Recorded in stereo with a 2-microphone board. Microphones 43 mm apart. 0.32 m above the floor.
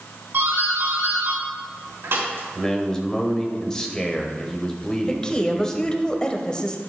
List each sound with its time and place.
0.3 s a doorbell: 65° right (ahead or behind), 4.5 m
2.5 s a man speaking: 15° left (ahead or behind), 1.4 m
5.1 s a woman speaking: 20° left (ahead or behind), 1.1 m